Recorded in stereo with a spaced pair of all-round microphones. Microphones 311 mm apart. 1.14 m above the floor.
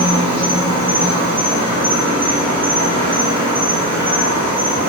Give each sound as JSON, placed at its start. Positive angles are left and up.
{"t": 0.0, "sound": "an insect", "side_deg": -15, "distance_m": 1.1}